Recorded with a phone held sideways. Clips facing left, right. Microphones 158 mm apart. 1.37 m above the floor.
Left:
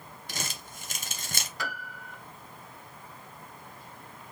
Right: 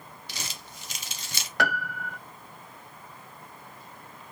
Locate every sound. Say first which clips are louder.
0.3 s crumpling: left 4 dB; 50° left (ahead or behind), 1.0 m
1.6 s a piano: right 13 dB; 70° right (ahead or behind), 0.7 m